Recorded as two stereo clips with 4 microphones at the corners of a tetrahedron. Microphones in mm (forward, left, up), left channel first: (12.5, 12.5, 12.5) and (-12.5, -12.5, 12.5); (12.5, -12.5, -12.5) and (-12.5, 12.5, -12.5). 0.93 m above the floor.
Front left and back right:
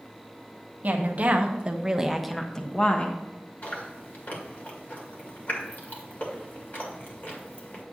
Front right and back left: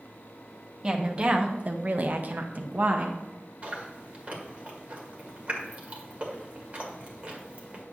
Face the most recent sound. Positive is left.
turn(degrees=80)